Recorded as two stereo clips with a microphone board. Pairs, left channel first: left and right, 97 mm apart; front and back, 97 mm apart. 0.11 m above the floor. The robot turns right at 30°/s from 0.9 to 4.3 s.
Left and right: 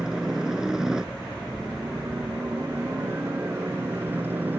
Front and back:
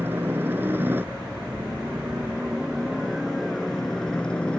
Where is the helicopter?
165° right; by 4.6 s 60° right.